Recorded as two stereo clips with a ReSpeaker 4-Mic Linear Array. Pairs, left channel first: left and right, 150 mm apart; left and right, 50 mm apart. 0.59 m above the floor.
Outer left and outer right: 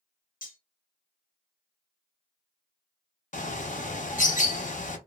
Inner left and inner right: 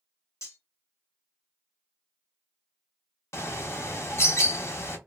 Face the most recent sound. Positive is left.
turn(degrees=60)  # may be behind; listen again after turning